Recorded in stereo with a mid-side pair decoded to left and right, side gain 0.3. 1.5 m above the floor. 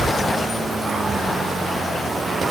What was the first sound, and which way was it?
Only background noise.